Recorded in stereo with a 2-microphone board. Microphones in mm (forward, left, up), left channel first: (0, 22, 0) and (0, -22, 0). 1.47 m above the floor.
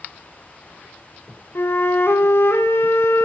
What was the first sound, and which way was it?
A flute, 60° left (ahead or behind).